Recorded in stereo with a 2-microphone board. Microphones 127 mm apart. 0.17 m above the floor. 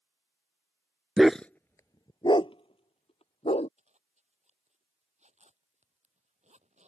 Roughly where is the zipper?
Right.